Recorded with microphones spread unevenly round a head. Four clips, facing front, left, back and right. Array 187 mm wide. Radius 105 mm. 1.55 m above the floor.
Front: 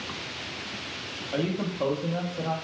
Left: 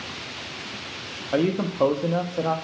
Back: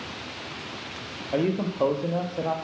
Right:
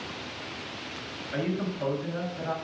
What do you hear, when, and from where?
1.3 s a man speaking: 115° left, 0.5 m